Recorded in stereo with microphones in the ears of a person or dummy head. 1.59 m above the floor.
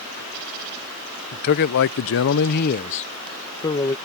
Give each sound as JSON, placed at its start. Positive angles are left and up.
{"t": 1.3, "sound": "a man speaking", "side_deg": 45}